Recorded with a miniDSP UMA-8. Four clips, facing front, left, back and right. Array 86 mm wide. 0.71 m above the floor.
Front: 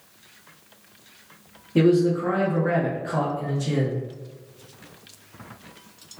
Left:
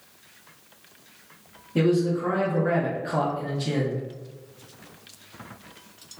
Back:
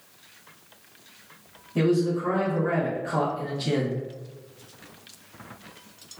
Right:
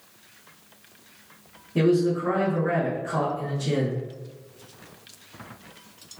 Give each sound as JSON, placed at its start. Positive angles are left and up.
{"t": 1.8, "sound": "a man speaking", "azimuth_deg": 15, "distance_m": 0.9}